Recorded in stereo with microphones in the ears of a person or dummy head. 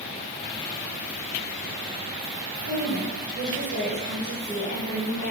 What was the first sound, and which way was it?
A woman speaking, 30° right (ahead or behind).